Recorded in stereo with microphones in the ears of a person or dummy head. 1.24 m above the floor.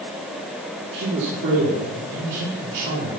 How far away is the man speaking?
About 3 m.